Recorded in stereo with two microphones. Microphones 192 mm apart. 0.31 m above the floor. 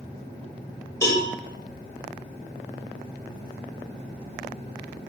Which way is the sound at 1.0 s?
15° left (ahead or behind).